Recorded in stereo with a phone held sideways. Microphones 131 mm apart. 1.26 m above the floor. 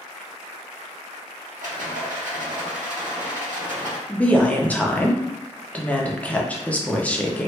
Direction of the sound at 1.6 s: 80° right.